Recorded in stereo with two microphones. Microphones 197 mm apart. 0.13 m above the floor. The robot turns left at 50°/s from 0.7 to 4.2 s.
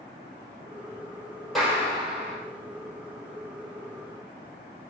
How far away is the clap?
About 4 m.